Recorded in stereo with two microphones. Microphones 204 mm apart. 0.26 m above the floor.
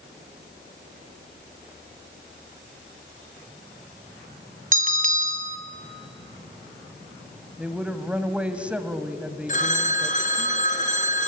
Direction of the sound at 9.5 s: 40° left (ahead or behind).